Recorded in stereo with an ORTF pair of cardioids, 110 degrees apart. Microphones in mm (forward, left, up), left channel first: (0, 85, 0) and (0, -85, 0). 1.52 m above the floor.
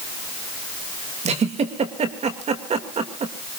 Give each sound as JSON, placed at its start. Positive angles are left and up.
{"t": 1.2, "sound": "a giggle", "azimuth_deg": -40, "distance_m": 3.0}